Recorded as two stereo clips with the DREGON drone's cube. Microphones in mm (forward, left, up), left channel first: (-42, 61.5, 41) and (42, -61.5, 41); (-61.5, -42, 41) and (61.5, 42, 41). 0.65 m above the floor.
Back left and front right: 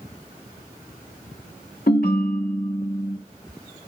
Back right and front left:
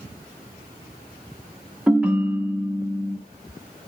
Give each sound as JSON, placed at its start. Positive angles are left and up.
{"t": 1.9, "sound": "a ringtone", "azimuth_deg": 115, "distance_m": 0.9}